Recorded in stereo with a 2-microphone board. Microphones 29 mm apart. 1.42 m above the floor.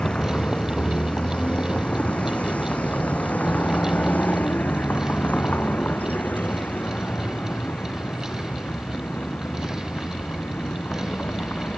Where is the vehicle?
40° left (ahead or behind); by 11.8 s 60° left (ahead or behind).